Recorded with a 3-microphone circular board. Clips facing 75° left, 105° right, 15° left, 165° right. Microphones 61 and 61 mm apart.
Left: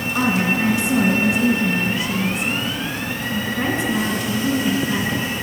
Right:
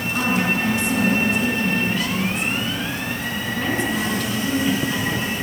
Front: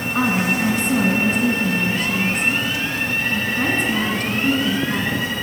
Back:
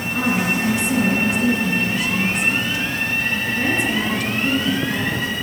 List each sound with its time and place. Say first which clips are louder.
0.1 s a woman speaking: left 2 dB, front 1 dB; 10° left, 2.0 m